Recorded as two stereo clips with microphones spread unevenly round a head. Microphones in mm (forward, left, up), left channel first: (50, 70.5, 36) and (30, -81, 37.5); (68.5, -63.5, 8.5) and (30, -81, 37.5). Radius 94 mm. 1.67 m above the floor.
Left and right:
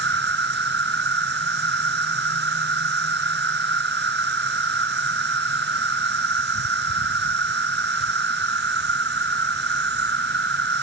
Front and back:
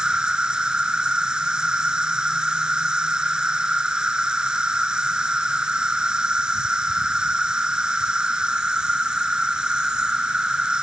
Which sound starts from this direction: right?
An insect, at 0.0 s.